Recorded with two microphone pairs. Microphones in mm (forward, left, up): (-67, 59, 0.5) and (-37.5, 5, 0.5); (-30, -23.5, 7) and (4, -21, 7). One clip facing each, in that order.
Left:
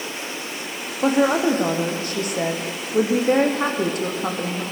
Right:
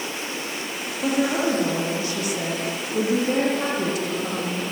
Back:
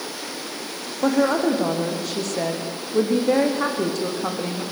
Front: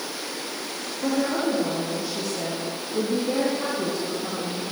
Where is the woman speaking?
155° left, 5 m.